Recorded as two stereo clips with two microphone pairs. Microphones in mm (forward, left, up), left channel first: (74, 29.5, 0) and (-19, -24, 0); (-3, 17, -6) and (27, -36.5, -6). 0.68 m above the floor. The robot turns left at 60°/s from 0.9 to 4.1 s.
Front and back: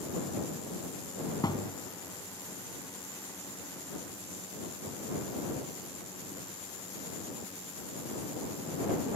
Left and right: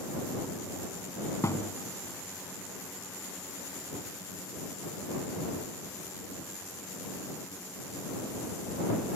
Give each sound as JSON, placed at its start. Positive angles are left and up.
{"t": 1.4, "sound": "a thud", "azimuth_deg": 80}